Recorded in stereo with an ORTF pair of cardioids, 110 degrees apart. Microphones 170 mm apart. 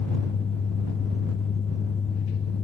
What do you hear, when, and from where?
0.0 s a fan: 35° left